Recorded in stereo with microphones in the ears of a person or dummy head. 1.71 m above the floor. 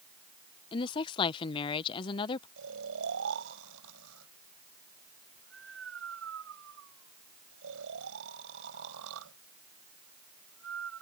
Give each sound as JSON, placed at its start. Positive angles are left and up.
{"t": 0.7, "sound": "a woman speaking", "side_deg": 35}
{"t": 2.6, "sound": "snoring", "side_deg": -85}